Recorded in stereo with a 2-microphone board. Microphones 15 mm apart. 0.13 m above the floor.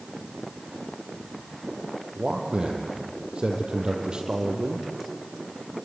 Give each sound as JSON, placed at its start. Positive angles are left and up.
{"t": 2.1, "sound": "a man speaking", "side_deg": -70, "distance_m": 3.5}